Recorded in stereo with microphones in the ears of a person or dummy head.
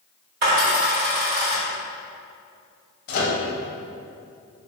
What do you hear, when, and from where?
0.4 s a dropped coin: 50° right (ahead or behind), 1.9 m
3.1 s a microwave: 55° left (ahead or behind), 0.6 m